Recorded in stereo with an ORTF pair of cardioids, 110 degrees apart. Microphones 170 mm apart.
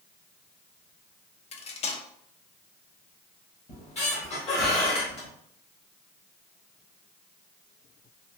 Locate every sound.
1.5 s cutlery clinking: 40° left, 0.5 m
3.7 s a squeak: 35° left, 1.5 m